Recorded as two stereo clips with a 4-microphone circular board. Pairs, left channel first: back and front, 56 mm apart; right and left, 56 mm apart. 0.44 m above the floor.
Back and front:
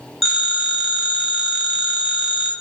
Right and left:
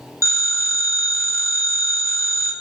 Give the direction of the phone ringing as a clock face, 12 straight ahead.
3 o'clock.